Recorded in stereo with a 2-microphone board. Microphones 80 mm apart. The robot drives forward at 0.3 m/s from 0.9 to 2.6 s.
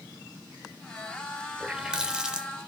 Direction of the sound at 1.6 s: 10° right (ahead or behind).